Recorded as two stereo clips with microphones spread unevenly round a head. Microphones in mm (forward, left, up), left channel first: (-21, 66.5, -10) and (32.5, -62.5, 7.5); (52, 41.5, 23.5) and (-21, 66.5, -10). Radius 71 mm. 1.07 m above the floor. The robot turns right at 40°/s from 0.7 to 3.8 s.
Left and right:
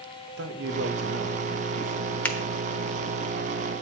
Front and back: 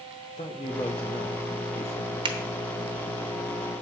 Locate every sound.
0.4 s a man speaking: 80° right, 1.2 m; by 2.1 s 20° right, 1.2 m
2.2 s a finger snap: 165° right, 0.9 m; by 2.4 s 160° right, 0.9 m